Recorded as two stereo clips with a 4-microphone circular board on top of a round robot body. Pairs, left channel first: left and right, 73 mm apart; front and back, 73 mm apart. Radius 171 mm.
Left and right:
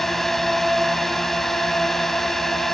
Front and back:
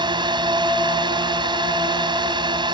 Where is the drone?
175° left.